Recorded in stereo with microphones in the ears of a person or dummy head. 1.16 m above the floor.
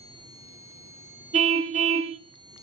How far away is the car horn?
About 2 m.